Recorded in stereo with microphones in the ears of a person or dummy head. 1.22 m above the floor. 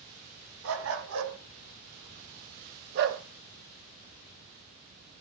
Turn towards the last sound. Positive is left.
turn(degrees=-55)  # may be behind; listen again after turning